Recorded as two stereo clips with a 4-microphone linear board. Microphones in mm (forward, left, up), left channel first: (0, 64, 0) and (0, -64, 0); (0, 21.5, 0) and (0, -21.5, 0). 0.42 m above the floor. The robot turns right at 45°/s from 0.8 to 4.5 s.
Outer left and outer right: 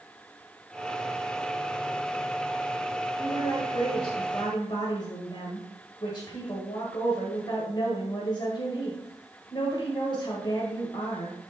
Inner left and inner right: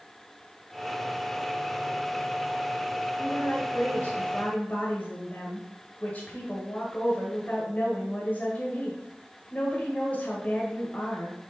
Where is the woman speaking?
70° left, 2 m; by 11.4 s 130° left, 2 m.